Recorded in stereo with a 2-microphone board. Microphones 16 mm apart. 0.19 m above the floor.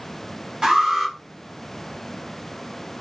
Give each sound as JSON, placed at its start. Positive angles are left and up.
{"t": 0.6, "sound": "an alarm", "side_deg": -30, "distance_m": 1.3}